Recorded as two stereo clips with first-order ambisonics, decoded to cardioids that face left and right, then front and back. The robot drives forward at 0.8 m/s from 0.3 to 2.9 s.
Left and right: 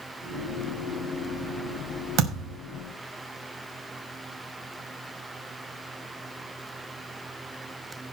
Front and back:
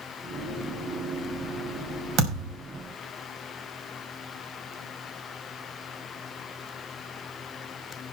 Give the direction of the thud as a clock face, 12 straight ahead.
5 o'clock.